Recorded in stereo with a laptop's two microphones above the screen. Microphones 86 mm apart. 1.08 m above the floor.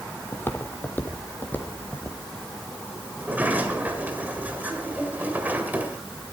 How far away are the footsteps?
About 1.3 m.